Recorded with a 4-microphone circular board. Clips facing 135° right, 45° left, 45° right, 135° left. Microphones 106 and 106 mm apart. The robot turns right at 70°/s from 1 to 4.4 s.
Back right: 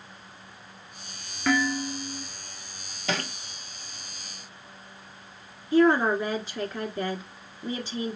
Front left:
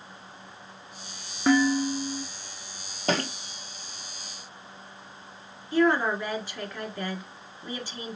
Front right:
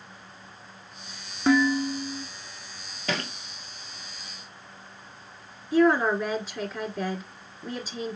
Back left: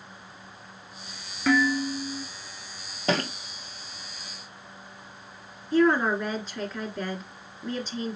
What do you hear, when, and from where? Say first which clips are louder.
1.5 s dishes clattering: front left 4 dB, front right 2 dB; straight ahead, 1.0 m; by 2.2 s 55° left, 1.0 m
3.1 s a thud: front left 4 dB, back left 5 dB; 85° left, 0.7 m; by 3.3 s 105° left, 0.7 m
5.7 s a woman speaking: back right 3 dB, front right 1 dB; 120° right, 1.6 m